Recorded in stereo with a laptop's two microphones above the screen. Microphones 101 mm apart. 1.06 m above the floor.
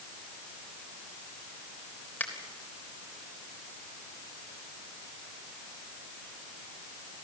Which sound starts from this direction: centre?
A finger snap, at 2.2 s.